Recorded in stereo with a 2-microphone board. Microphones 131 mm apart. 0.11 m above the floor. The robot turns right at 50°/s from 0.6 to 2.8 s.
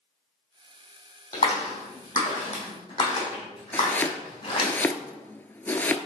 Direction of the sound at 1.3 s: 60° left (ahead or behind).